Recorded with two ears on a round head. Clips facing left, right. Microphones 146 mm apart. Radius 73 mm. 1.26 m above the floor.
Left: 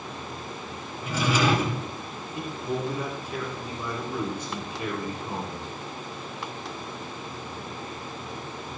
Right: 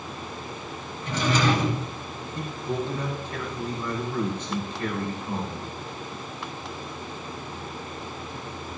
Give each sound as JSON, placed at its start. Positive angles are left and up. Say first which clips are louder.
{"t": 1.0, "sound": "a drawer", "louder": "even", "side_deg": 10, "distance_m": 5.5}
{"t": 2.4, "sound": "a man speaking", "louder": "even", "side_deg": 10, "distance_m": 3.5}